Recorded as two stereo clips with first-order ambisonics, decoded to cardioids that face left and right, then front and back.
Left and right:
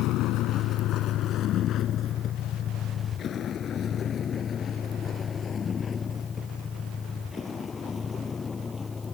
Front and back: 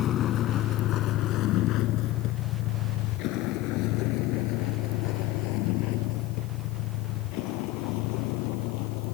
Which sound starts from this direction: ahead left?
A vehicle, at 0.0 s.